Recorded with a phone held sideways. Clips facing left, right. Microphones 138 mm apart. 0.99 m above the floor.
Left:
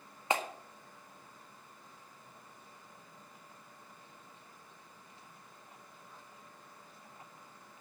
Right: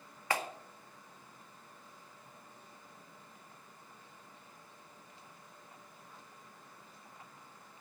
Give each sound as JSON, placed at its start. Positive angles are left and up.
{"t": 0.3, "sound": "a clap", "side_deg": 20, "distance_m": 1.8}